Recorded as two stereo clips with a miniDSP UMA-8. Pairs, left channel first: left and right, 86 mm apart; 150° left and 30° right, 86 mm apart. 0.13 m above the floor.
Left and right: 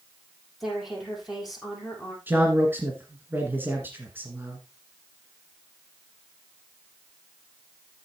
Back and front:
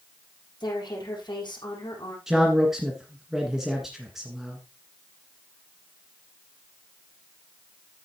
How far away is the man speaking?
About 1.6 m.